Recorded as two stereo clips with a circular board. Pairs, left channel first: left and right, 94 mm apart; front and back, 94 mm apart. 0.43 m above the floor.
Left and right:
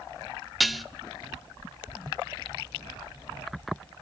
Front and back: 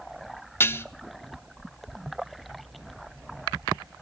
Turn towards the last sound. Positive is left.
turn(degrees=-5)